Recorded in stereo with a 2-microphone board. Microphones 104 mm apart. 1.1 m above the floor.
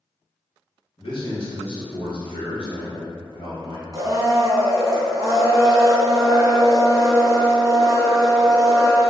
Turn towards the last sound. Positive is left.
turn(degrees=-30)  # may be behind; listen again after turning